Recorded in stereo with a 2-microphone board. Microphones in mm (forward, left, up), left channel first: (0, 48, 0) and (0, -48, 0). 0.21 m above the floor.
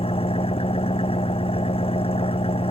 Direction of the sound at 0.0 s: 80° left.